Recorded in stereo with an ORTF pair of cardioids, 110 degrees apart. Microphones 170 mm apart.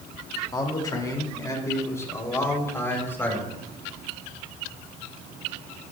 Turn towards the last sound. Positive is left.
turn(degrees=15)